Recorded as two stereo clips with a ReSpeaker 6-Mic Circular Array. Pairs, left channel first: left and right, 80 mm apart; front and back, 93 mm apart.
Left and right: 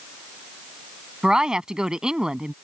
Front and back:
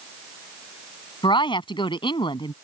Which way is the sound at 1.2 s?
10° right.